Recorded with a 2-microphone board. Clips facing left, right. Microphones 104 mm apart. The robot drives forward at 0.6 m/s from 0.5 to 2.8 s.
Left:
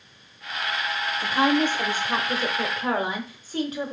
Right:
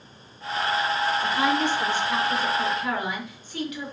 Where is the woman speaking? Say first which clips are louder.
Left 6 dB; 50° left (ahead or behind), 1.0 m; by 3.9 s 40° left (ahead or behind), 1.2 m.